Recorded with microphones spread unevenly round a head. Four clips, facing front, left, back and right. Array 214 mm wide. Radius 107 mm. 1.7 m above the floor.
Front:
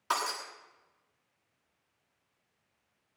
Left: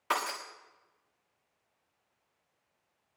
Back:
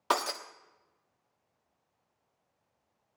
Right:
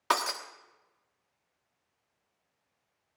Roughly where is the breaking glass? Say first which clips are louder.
Right 3 dB, back 2 dB; behind.